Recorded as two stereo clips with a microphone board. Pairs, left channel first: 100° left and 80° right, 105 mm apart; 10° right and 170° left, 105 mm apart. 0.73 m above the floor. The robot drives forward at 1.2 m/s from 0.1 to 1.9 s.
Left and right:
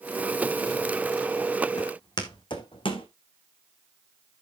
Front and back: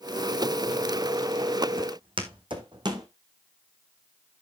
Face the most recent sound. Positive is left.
turn(degrees=125)